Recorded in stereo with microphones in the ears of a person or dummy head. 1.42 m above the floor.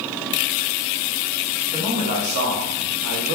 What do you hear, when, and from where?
1.7 s a man speaking: 30° right (ahead or behind), 0.9 m; by 3.4 s 65° right (ahead or behind), 0.8 m